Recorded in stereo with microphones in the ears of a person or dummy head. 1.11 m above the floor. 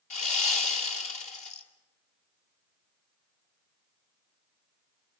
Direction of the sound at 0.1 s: 45° left (ahead or behind).